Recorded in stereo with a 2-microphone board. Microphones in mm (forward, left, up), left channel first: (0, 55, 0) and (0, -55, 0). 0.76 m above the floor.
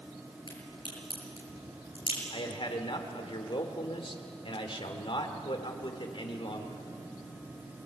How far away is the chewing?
No chewing in this recording.